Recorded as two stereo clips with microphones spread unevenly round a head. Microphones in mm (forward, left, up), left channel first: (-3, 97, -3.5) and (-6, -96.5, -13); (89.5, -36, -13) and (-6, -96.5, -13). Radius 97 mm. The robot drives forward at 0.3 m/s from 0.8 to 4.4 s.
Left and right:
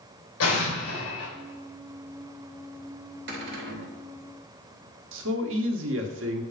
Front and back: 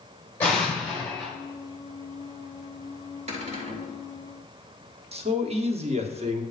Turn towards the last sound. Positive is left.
turn(degrees=-120)